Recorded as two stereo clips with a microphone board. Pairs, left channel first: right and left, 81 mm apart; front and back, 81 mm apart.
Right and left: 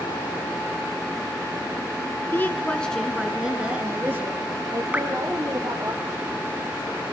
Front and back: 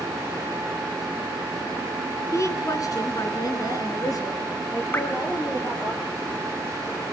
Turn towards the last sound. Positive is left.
turn(degrees=30)